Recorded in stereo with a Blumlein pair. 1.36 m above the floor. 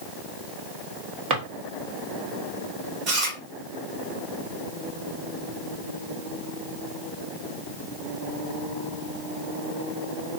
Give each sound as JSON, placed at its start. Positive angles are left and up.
{"t": 1.3, "sound": "a drawer", "azimuth_deg": -35, "distance_m": 1.3}
{"t": 3.1, "sound": "chewing", "azimuth_deg": -35, "distance_m": 1.3}